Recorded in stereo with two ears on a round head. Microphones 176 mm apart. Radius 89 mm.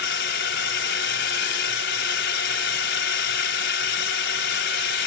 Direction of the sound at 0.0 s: 60° left (ahead or behind).